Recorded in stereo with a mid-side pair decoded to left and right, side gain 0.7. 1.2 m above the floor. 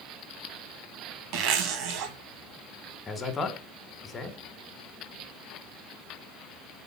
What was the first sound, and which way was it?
A zipper, 65° right.